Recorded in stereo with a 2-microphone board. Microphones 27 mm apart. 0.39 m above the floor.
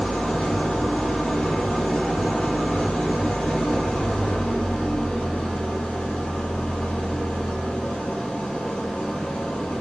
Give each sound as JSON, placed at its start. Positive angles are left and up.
{"t": 0.0, "sound": "an engine running", "side_deg": 85, "distance_m": 3.0}